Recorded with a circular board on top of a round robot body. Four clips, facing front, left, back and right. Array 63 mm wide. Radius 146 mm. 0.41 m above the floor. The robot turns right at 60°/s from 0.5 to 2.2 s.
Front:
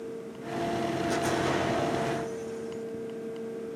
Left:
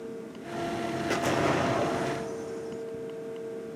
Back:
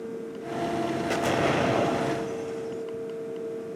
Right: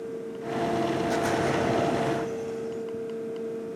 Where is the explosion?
140° left, 3.5 m; by 2.8 s 155° right, 3.5 m.